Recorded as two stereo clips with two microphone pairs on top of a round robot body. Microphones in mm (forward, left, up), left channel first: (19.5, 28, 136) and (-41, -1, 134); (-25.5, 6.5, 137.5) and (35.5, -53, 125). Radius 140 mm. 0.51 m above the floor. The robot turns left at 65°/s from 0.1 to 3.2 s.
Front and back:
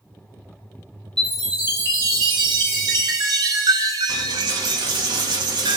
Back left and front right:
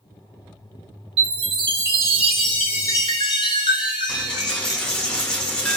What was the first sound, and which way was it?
A chime, 55° right.